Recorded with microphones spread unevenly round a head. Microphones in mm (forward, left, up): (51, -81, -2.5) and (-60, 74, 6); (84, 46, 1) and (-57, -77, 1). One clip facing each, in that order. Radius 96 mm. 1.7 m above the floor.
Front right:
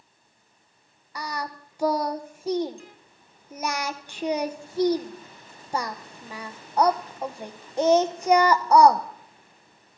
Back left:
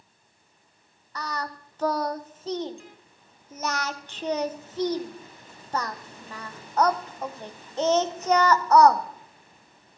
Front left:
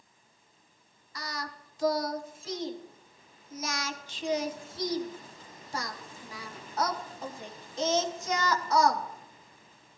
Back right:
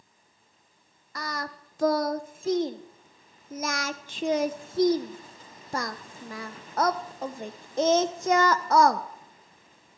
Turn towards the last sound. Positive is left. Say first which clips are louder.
# even, back right 4 dB
turn(degrees=-130)